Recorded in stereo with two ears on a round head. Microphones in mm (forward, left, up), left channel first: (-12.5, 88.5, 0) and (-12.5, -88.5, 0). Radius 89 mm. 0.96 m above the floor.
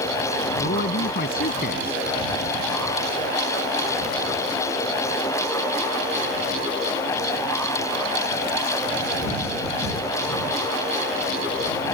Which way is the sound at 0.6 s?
50° left (ahead or behind).